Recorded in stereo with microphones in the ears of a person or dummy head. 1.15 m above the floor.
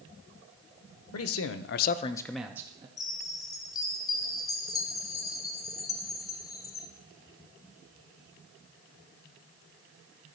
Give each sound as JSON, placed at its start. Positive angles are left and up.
{"t": 1.1, "sound": "a man speaking", "side_deg": 70, "distance_m": 0.9}
{"t": 3.0, "sound": "a chime", "side_deg": 20, "distance_m": 0.6}